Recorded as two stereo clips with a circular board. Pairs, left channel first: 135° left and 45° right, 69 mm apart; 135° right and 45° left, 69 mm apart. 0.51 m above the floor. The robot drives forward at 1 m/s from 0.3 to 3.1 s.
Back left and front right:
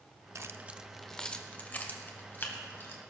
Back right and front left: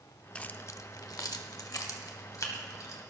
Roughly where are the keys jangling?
Ahead right.